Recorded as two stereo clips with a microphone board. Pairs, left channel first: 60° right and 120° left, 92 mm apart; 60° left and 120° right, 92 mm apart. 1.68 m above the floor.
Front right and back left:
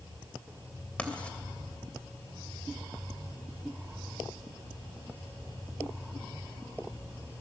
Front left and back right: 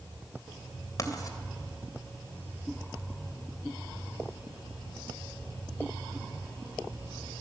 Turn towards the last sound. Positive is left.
turn(degrees=15)